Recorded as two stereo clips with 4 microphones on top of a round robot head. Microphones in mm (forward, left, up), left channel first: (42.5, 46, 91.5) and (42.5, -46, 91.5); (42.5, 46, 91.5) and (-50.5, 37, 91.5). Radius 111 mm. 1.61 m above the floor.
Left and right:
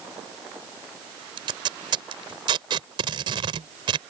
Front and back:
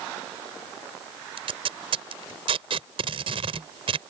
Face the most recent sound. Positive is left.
turn(degrees=-135)